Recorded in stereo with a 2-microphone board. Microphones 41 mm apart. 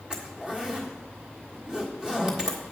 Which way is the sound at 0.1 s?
20° right (ahead or behind).